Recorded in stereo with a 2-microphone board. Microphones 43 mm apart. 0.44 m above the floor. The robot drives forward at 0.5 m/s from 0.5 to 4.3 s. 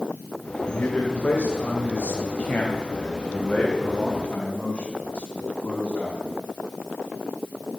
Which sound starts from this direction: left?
A man speaking, at 0.7 s.